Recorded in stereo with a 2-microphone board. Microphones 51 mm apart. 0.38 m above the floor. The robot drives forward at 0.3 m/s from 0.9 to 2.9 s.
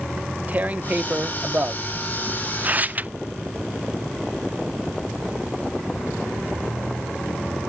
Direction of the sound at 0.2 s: 30° right (ahead or behind).